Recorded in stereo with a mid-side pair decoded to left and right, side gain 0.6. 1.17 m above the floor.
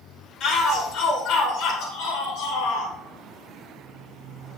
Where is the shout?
55° left, 3.5 m; by 2.9 s 75° left, 3.5 m.